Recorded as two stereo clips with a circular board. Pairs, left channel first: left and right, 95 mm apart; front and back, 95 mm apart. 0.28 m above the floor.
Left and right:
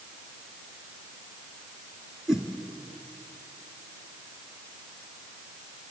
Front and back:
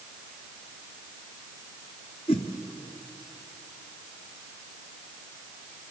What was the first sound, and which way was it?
A whoosh, 5° right.